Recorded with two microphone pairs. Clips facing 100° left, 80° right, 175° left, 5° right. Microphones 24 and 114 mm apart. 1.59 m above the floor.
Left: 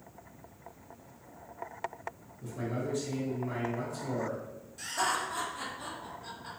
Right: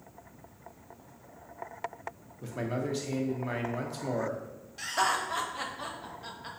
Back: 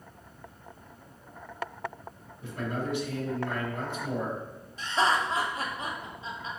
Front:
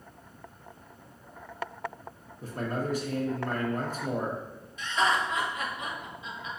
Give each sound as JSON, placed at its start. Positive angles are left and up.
{"t": 2.4, "sound": "a man speaking", "azimuth_deg": -55, "distance_m": 0.6}
{"t": 4.8, "sound": "laughter", "azimuth_deg": -130, "distance_m": 0.7}